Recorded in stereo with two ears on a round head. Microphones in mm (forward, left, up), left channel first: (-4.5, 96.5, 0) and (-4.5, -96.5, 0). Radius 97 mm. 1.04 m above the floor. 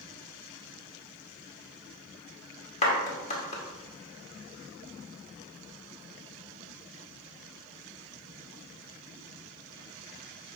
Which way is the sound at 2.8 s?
35° left (ahead or behind).